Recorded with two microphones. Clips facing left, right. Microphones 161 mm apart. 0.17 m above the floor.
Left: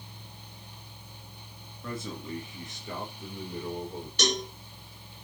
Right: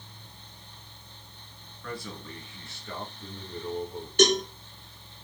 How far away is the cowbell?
About 2.5 m.